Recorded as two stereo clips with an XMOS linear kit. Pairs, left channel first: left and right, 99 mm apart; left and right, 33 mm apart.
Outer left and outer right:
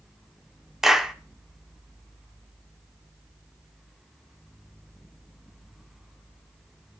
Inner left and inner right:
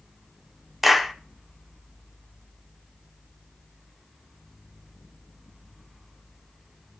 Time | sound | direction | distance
0.8 | a clap | 5° right (ahead or behind) | 0.8 m